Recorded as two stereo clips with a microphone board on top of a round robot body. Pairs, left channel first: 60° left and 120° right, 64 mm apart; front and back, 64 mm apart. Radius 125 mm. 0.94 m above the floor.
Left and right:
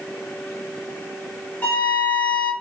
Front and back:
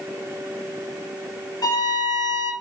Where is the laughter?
I don't hear laughter.